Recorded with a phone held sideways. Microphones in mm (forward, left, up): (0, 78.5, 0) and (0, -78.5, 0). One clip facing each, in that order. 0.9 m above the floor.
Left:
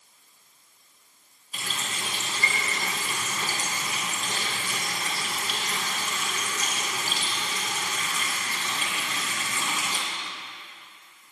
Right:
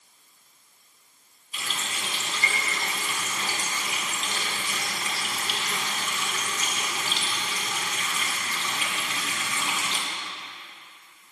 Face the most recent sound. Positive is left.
turn(degrees=45)  # may be behind; listen again after turning